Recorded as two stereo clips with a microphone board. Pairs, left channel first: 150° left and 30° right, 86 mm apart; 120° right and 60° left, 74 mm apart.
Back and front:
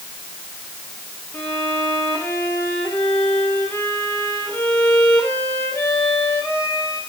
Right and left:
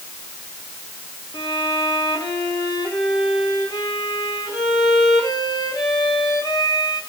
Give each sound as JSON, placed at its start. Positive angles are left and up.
{"t": 1.3, "sound": "a violin", "azimuth_deg": -145, "distance_m": 5.5}